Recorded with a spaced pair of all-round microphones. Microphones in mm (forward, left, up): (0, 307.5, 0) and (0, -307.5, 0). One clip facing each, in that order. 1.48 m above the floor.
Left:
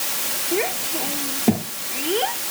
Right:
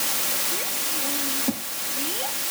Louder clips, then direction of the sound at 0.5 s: Left 16 dB; 85° left.